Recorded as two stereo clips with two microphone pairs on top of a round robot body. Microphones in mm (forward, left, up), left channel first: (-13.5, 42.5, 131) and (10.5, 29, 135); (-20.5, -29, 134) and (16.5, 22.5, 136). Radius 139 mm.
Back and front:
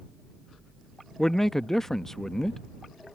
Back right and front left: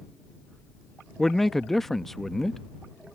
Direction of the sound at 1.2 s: 160° left.